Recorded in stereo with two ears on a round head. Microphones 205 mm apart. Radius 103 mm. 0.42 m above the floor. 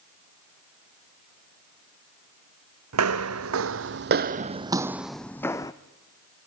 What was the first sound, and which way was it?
Footsteps, 75° right (ahead or behind).